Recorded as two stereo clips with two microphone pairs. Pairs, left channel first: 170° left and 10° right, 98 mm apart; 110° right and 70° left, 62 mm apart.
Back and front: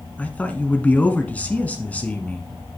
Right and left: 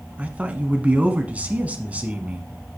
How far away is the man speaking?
About 1.1 m.